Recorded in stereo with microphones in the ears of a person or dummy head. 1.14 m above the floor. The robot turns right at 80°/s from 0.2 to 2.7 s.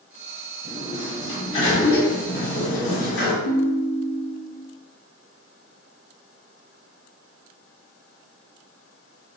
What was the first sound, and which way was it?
A sliding door, 45° right.